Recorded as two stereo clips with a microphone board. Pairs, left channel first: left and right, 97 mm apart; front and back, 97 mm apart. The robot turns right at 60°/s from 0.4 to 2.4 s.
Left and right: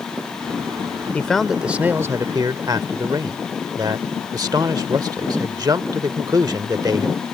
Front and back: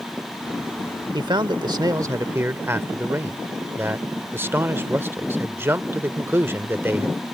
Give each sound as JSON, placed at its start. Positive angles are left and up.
{"t": 1.1, "sound": "a man speaking", "azimuth_deg": 160}